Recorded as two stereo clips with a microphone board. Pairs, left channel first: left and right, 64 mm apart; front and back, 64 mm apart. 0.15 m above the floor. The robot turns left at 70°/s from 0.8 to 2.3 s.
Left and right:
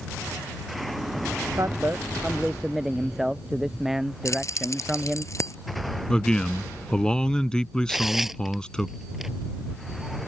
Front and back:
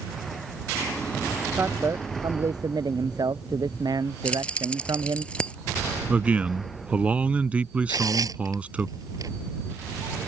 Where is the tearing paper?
170° right.